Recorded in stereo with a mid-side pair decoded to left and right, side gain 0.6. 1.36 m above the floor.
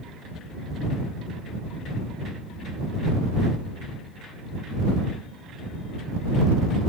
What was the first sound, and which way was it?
Only background noise.